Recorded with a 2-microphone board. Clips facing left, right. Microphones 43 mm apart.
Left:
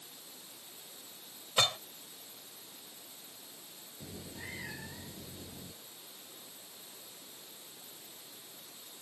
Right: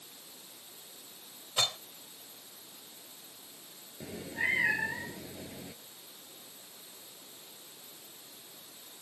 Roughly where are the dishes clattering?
Centre.